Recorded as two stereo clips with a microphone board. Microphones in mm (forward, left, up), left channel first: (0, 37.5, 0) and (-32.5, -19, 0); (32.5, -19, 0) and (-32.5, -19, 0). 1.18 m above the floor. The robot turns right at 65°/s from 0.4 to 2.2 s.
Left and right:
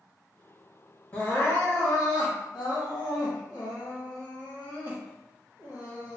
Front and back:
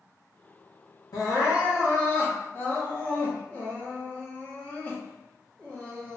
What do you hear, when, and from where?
1.1 s crying: 5° right, 1.3 m; by 6.2 s 65° left, 1.3 m